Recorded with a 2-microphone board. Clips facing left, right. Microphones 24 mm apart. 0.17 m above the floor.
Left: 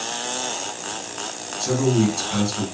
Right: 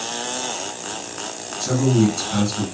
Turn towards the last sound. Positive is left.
turn(degrees=15)  # may be behind; listen again after turning